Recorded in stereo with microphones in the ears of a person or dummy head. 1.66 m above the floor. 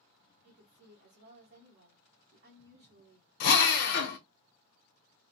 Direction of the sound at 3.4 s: 60° left (ahead or behind).